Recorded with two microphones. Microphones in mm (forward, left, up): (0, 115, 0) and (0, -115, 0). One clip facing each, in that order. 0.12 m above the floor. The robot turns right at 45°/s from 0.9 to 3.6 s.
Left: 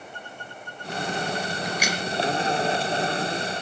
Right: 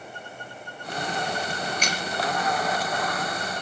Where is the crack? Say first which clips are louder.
Left 2 dB; 15° left (ahead or behind), 2.5 m; by 2.0 s 5° left (ahead or behind), 2.5 m.